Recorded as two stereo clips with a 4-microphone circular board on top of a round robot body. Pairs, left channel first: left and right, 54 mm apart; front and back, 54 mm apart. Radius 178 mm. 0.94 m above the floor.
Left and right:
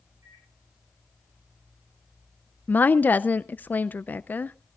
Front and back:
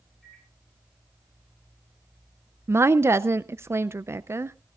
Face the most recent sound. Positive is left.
turn(degrees=145)